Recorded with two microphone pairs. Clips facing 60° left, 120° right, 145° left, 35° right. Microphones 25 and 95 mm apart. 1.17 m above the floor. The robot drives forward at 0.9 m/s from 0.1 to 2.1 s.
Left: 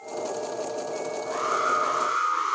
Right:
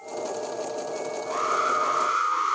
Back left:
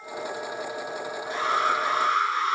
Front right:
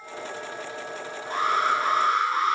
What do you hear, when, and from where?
1.3 s an alarm: 85° right, 9.5 m; by 2.5 s 90° right, 9.5 m